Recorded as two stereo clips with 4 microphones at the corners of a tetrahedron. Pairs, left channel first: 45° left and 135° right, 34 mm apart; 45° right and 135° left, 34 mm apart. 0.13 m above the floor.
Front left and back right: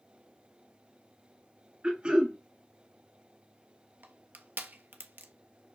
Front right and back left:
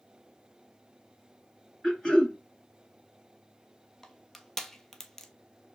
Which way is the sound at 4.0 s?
125° right.